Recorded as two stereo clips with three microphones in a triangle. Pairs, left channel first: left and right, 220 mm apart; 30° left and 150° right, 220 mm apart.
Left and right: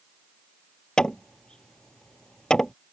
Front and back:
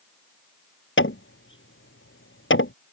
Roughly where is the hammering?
Ahead.